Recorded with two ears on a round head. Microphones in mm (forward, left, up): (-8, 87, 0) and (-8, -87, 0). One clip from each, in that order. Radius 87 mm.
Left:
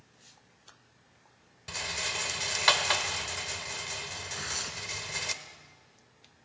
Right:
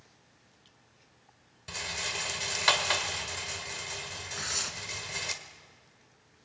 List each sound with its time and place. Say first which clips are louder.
1.7 s a rattle: left 1 dB; 5° left (ahead or behind), 1.2 m
4.3 s tearing paper: right 3 dB; 15° right (ahead or behind), 1.9 m